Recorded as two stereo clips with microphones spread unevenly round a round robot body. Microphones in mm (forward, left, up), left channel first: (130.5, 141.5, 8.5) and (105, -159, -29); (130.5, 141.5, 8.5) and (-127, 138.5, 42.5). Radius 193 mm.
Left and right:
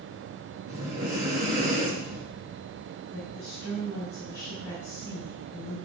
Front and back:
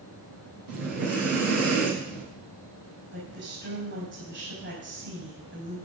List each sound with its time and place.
0.7 s breathing: 160° right, 3 m
3.1 s a woman speaking: 155° left, 5 m